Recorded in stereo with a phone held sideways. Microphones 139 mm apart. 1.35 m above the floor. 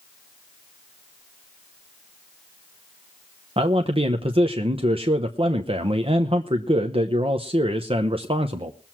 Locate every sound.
3.6 s a man speaking: 40° right (ahead or behind), 0.9 m